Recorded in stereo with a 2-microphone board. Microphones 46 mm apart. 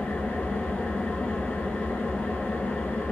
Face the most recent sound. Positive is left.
turn(degrees=30)  # may be behind; listen again after turning